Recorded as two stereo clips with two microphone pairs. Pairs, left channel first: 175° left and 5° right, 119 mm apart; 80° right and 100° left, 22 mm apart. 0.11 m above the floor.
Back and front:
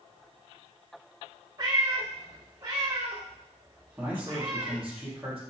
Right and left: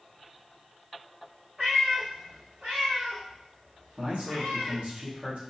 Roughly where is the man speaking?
Left.